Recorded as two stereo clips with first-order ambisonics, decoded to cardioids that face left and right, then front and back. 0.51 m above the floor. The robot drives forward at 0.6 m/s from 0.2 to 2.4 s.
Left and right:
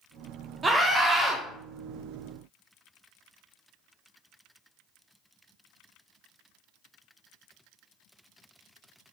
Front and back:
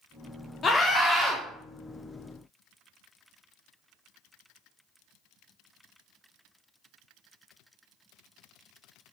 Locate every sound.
0.6 s a scream: 35° right, 0.7 m; by 1.4 s 140° right, 0.7 m